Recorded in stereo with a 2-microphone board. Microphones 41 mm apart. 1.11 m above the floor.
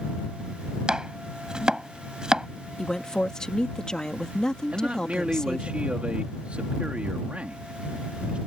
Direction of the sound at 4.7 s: 30° right (ahead or behind).